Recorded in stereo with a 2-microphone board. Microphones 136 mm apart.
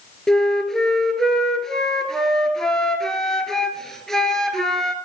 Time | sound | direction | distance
0.3 | a flute | 5° left (ahead or behind) | 1.0 m